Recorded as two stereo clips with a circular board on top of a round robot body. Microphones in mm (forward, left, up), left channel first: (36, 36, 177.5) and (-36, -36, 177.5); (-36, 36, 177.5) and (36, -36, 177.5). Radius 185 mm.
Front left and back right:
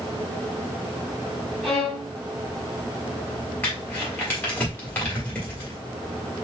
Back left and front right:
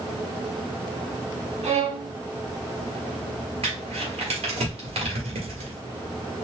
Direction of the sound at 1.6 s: 40° right.